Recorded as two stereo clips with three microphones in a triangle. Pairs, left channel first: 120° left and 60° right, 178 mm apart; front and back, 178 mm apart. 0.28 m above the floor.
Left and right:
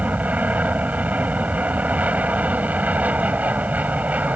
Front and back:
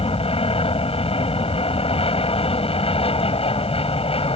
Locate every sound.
0.0 s an aircraft: 15° left